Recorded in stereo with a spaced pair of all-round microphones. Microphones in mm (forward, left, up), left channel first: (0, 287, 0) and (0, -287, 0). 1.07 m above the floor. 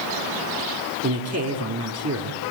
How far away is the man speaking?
About 3 m.